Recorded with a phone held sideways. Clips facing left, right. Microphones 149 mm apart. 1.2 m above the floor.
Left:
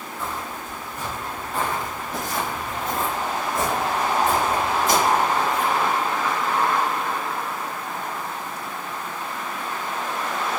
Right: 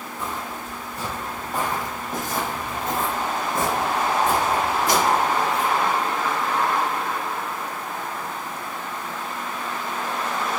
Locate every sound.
0.2 s footsteps: 15° right (ahead or behind), 1.3 m; by 5.7 s 60° right (ahead or behind), 4 m